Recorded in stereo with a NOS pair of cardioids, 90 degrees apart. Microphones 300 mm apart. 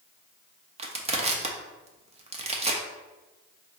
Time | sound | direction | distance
0.8 | crushing | 20° right | 0.7 m